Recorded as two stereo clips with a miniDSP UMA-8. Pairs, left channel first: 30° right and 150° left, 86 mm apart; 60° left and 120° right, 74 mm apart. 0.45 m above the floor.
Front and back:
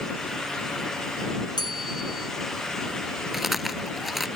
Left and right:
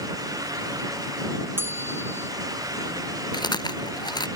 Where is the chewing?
65° left.